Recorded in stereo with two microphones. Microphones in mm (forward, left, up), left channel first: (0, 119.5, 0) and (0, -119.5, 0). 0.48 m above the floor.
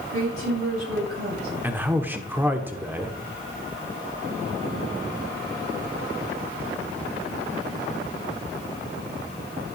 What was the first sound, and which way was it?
A woman speaking, 70° right (ahead or behind).